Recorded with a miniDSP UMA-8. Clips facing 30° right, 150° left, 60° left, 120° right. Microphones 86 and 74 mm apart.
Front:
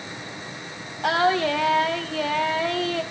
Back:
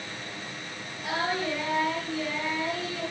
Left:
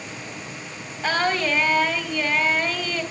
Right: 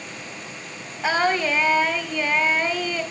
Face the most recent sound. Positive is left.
turn(degrees=-35)